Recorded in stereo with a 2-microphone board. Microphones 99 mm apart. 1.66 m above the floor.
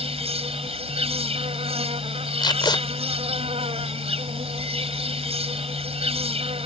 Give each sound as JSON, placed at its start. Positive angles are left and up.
{"t": 0.0, "sound": "an insect", "side_deg": -85}
{"t": 2.4, "sound": "tape being pulled", "side_deg": 50}